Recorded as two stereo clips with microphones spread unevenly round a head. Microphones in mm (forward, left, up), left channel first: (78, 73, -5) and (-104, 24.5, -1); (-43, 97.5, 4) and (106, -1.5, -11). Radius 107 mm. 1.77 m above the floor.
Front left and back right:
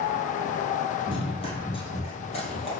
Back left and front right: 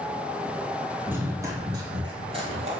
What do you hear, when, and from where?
1.1 s running footsteps: 45° left, 1.9 m; by 2.7 s 15° right, 2 m